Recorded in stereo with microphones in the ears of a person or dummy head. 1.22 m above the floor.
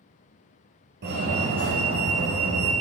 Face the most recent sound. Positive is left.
turn(degrees=-65)  # may be behind; listen again after turning